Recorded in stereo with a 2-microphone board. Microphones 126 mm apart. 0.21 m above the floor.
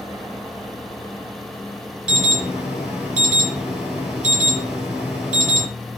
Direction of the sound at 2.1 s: 5° right (ahead or behind).